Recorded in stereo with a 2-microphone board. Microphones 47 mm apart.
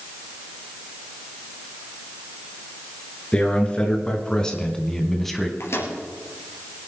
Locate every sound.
3.3 s a man speaking: 20° left (ahead or behind), 3.5 m; by 5.5 s centre (ahead or behind), 1.6 m
5.6 s a microwave: 75° left (ahead or behind), 3.5 m